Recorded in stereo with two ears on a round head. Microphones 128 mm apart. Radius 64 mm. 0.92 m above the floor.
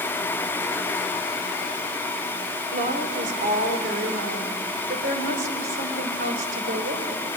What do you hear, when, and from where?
2.7 s a woman speaking: 55° right (ahead or behind), 3.5 m; by 7.2 s 80° right, 4.5 m